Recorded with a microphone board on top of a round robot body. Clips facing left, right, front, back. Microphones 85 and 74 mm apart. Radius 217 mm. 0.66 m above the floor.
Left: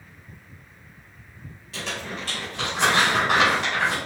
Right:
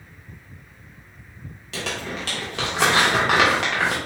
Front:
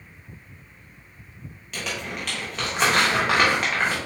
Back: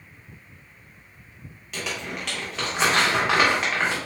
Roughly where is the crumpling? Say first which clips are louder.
Right 3 dB, even; right.